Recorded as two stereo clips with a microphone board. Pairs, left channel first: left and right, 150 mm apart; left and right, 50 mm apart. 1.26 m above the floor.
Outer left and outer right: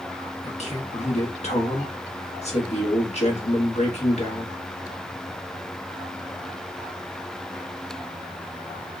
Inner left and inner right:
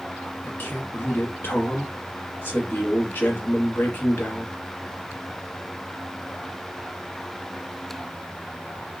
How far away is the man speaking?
About 1.2 m.